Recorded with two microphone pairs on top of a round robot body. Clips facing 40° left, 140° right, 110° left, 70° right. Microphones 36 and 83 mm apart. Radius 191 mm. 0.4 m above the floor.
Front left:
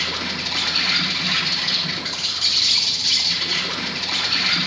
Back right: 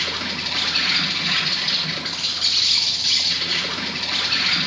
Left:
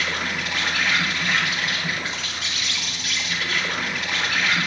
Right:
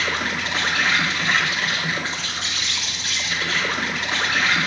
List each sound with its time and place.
0.0 s an insect: 85° right, 2 m